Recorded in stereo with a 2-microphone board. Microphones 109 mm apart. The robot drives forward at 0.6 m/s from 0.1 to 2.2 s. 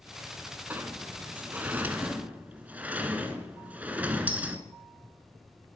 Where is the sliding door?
15° right (ahead or behind), 0.9 m.